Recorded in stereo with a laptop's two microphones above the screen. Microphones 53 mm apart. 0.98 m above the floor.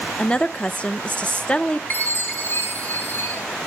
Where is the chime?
40° left (ahead or behind), 5.5 m.